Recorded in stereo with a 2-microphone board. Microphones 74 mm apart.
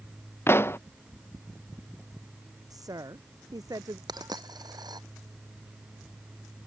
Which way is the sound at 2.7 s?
60° right (ahead or behind).